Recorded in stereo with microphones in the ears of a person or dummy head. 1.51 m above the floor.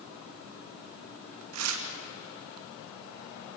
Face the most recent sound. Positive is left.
turn(degrees=-85)